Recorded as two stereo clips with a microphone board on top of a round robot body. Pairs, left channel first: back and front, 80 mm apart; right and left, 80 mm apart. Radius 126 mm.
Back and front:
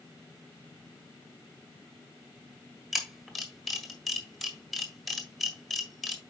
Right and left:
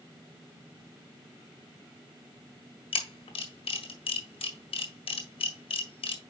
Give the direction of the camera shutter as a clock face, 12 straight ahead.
3 o'clock.